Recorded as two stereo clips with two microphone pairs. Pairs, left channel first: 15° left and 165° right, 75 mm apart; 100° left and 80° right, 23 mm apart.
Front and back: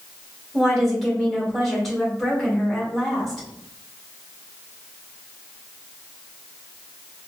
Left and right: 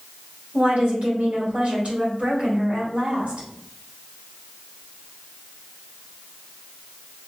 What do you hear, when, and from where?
0.5 s a woman speaking: 70° right, 1.9 m